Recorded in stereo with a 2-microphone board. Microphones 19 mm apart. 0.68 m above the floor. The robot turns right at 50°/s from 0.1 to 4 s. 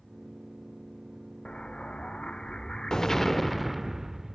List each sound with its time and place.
1.4 s an explosion: 65° left, 0.6 m; by 4.3 s 165° right, 0.6 m